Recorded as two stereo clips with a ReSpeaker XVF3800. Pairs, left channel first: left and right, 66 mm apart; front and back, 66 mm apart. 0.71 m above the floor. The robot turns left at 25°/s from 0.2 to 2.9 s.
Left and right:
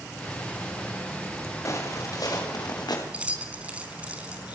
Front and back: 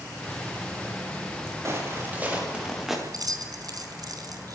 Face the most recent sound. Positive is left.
turn(degrees=-160)